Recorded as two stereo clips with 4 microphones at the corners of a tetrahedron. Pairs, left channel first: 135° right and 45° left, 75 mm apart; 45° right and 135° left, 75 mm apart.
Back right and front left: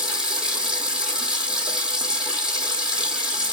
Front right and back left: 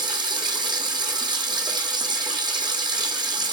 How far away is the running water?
About 2 m.